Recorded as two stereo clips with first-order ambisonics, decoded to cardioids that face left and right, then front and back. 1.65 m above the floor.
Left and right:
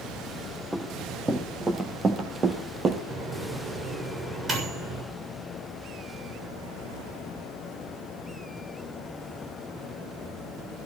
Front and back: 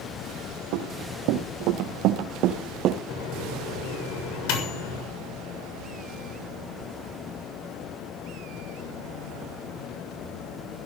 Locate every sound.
0.7 s running footsteps: 175° right, 4 m; by 3.0 s 145° right, 2.5 m
3.1 s a microwave: 20° right, 7 m